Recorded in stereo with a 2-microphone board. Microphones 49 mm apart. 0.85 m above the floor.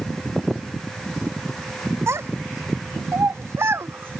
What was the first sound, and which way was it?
A child speaking, 75° right (ahead or behind).